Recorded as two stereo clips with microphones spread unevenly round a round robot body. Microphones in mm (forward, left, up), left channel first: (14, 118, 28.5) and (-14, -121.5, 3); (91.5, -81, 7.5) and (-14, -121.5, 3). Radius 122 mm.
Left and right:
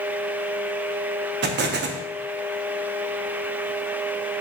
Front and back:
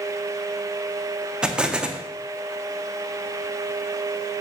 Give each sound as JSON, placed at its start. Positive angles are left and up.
{"t": 1.4, "sound": "an explosion", "azimuth_deg": -80, "distance_m": 0.5}